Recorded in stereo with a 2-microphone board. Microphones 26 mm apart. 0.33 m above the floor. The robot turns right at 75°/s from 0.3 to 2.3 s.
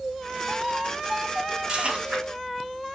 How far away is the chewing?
About 3 m.